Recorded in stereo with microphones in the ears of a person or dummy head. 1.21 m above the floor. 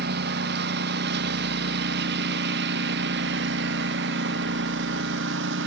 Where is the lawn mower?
65° right (ahead or behind); by 5.7 s 75° right (ahead or behind).